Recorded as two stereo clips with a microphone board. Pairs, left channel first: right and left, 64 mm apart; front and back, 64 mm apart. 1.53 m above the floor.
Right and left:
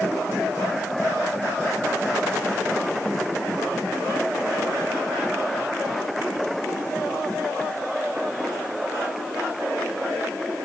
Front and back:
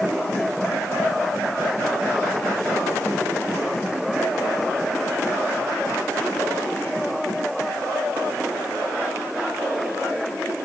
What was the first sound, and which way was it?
Only background noise.